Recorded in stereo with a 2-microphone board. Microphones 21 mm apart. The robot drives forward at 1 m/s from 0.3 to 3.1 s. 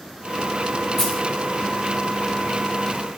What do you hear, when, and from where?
1.0 s a dropped coin: 15° left (ahead or behind), 3.5 m